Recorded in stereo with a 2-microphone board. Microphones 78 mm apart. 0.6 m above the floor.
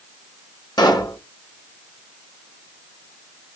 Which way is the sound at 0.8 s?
55° left (ahead or behind).